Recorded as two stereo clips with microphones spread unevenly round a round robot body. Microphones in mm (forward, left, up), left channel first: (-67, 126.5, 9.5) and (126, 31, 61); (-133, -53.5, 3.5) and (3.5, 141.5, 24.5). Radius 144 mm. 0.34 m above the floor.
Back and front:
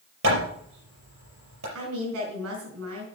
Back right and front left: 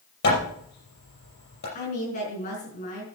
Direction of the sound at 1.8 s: 65° right.